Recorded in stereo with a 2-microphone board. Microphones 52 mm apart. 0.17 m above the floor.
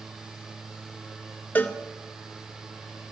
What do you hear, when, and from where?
1.6 s a cowbell: 40° left (ahead or behind), 0.5 m